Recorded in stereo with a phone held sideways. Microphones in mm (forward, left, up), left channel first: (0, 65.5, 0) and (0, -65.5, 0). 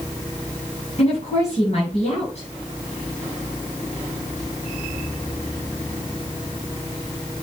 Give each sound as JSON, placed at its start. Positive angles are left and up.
{"t": 1.0, "sound": "a woman speaking", "side_deg": 50, "distance_m": 8.0}